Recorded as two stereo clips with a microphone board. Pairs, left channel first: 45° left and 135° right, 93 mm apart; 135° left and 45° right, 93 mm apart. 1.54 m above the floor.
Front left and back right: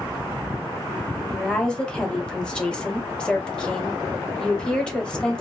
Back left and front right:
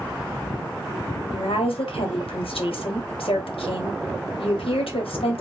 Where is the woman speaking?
125° left, 0.8 m.